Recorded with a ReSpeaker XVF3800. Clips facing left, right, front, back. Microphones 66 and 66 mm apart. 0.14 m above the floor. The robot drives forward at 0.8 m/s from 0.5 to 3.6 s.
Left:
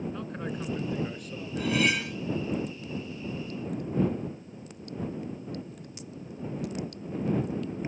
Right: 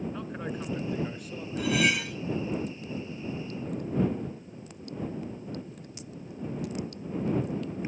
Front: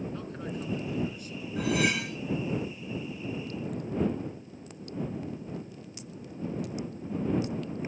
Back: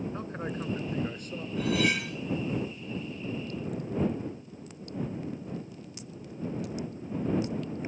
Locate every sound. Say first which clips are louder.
0.1 s a man speaking: even, back 2 dB; 175° right, 1.3 m
1.6 s cutlery clinking: even, even; 5° right, 6.5 m